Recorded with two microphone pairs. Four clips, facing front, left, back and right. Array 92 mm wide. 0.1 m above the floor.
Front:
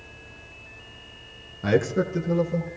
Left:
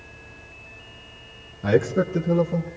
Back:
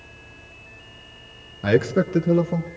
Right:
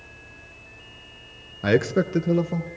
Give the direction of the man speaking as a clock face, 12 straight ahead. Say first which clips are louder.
Even, back 3 dB; 3 o'clock.